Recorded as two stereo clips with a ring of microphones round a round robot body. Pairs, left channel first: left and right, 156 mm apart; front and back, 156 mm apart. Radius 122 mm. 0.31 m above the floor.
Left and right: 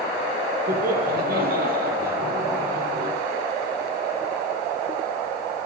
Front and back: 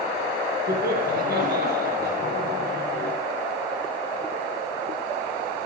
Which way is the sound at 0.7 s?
135° right.